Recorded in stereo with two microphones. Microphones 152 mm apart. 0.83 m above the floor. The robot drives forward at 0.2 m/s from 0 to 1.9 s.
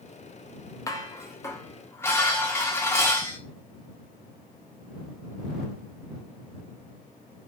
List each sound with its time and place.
0.9 s dishes clattering: 20° left (ahead or behind), 0.6 m; by 3.4 s 15° left (ahead or behind), 0.7 m